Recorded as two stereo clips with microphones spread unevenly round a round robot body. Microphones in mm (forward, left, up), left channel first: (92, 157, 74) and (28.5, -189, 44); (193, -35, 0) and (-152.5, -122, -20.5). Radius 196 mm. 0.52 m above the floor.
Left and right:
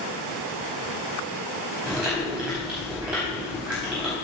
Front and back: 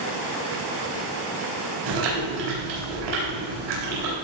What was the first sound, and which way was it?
Chewing, 175° left.